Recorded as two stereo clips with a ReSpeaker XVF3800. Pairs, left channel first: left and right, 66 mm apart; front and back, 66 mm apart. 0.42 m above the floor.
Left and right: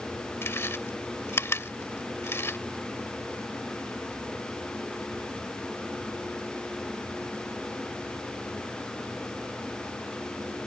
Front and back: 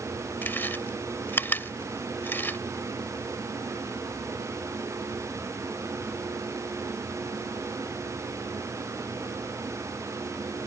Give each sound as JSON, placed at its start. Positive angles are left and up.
{"t": 0.4, "sound": "chewing", "azimuth_deg": 50}